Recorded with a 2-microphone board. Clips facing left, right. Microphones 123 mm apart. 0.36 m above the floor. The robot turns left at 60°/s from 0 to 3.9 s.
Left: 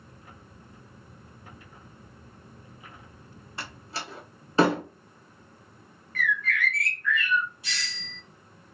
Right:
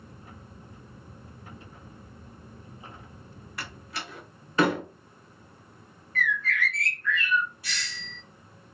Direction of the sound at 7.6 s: 20° left (ahead or behind).